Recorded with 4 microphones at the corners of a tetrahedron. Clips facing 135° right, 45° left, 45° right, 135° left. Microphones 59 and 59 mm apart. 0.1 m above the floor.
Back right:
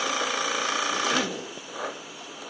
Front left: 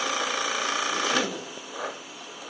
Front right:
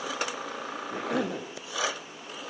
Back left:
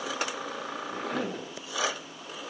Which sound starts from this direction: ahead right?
A cough, at 0.9 s.